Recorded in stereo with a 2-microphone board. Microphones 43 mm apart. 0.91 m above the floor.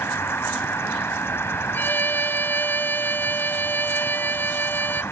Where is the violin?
50° left (ahead or behind).